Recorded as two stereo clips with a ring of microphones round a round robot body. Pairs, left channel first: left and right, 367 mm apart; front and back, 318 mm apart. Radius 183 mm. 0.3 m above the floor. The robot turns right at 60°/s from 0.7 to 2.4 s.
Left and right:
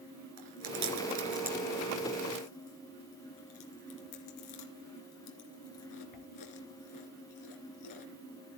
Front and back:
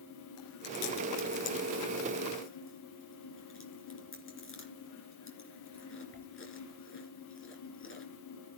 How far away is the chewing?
About 3 m.